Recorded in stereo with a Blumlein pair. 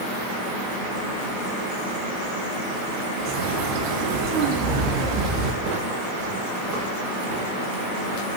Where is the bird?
40° right, 2 m.